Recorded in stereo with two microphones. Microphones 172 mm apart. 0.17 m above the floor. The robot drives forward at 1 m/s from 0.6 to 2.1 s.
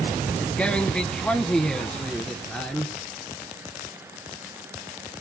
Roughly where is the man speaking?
Centre.